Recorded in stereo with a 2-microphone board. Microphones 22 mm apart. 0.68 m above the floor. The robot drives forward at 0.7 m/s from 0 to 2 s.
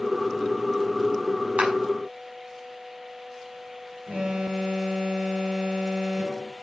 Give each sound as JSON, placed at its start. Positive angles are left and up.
{"t": 1.6, "sound": "a clap", "side_deg": -80, "distance_m": 6.5}
{"t": 4.1, "sound": "an alarm", "side_deg": -80, "distance_m": 7.5}